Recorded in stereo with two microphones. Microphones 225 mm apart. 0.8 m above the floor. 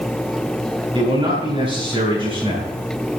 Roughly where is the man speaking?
Right.